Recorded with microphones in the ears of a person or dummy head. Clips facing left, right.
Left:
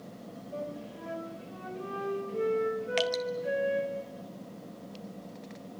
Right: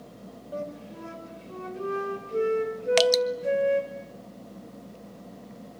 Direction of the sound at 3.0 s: 65° right (ahead or behind).